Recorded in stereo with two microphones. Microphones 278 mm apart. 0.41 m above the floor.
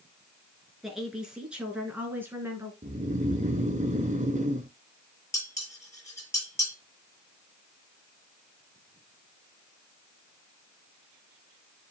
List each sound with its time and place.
0.8 s a woman speaking: centre (ahead or behind), 5 m; by 2.7 s 10° right (ahead or behind), 4 m
2.8 s snoring: 25° right (ahead or behind), 0.9 m
5.3 s dishes clattering: 10° left (ahead or behind), 6.5 m